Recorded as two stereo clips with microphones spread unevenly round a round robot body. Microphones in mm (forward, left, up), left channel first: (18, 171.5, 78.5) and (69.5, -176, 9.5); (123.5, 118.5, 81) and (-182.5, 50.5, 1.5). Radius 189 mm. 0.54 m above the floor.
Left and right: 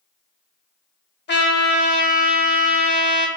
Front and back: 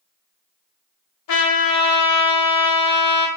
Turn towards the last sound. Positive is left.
turn(degrees=35)